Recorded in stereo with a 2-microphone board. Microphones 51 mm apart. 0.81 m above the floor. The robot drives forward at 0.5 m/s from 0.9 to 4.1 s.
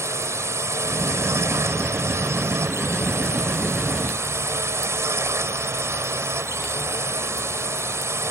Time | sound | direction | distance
0.0 | a drone | 70° right (ahead or behind) | ?